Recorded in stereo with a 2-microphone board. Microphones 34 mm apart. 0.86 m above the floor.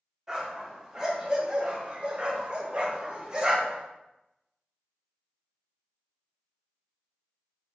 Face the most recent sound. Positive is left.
turn(degrees=-25)  # may be behind; listen again after turning